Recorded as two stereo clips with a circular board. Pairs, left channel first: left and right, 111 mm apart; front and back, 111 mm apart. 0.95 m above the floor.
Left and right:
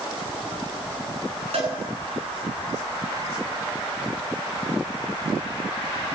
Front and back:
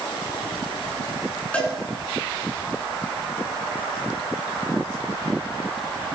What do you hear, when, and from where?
1.5 s a cowbell: 80° right, 9 m